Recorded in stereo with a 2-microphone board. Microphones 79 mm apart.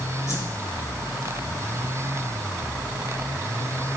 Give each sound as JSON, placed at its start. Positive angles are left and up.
{"t": 0.3, "sound": "a whoosh", "side_deg": 45, "distance_m": 4.0}